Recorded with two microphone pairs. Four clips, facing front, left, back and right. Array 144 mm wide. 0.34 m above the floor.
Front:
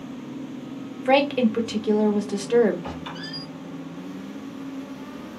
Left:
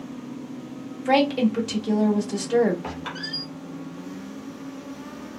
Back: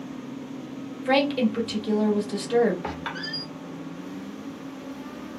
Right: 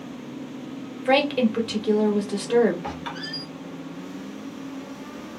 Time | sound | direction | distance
1.1 | a woman speaking | 40° right | 0.9 m
2.8 | a squeak | straight behind | 1.4 m